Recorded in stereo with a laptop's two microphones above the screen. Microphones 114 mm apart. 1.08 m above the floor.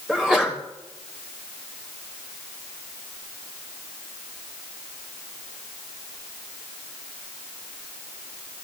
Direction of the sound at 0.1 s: 5° right (ahead or behind).